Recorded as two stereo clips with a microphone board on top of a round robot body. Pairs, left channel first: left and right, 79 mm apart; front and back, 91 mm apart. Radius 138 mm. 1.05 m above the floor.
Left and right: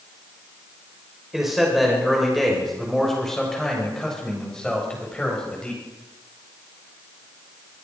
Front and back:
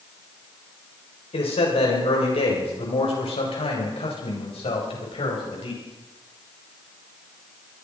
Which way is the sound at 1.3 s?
5° right.